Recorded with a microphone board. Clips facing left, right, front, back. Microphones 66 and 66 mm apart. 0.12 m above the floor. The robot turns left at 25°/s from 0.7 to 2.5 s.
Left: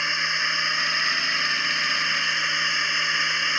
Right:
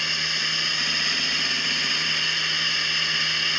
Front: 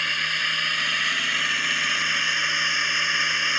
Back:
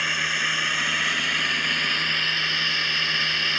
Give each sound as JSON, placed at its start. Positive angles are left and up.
{"t": 0.0, "sound": "a drone", "azimuth_deg": 105}